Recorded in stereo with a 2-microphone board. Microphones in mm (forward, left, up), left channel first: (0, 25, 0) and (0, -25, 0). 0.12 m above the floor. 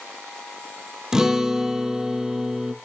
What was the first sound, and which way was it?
A guitar, 10° right (ahead or behind).